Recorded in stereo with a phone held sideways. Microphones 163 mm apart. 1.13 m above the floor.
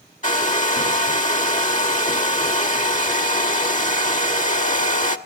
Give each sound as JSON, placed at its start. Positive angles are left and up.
{"t": 0.2, "sound": "a hair dryer", "side_deg": 50, "distance_m": 1.2}